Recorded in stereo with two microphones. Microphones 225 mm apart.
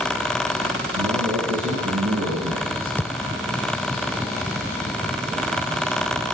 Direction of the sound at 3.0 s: 10° left (ahead or behind).